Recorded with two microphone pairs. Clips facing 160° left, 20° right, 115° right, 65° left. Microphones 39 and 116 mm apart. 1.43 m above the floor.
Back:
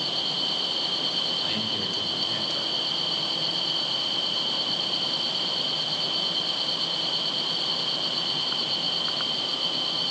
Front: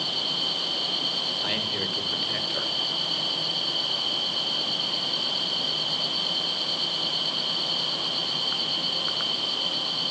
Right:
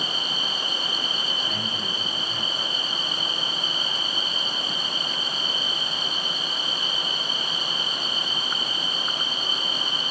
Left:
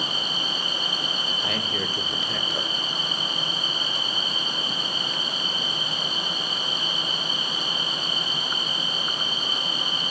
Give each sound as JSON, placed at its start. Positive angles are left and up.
{"t": 1.4, "sound": "a man speaking", "azimuth_deg": 50, "distance_m": 1.0}